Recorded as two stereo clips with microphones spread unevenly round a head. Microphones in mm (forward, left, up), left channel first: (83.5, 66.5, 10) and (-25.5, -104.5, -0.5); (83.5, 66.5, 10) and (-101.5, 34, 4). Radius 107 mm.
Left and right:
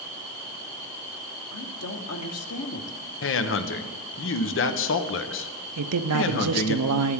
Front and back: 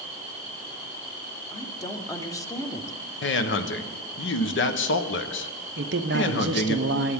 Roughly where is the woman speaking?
Left.